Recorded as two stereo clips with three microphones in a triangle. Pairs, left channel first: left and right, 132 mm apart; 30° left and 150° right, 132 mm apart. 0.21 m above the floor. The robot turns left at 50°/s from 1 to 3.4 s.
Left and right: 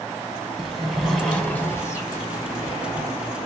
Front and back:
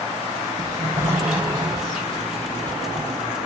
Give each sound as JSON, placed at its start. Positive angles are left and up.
{"t": 0.6, "sound": "a sliding door", "azimuth_deg": 175, "distance_m": 1.1}